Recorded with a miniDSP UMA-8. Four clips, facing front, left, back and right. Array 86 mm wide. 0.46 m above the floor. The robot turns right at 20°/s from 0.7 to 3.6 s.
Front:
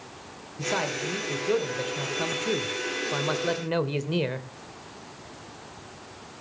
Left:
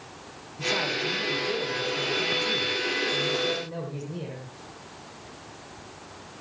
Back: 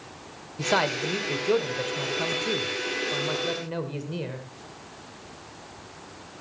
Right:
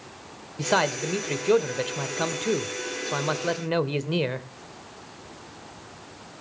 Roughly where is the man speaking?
Behind right.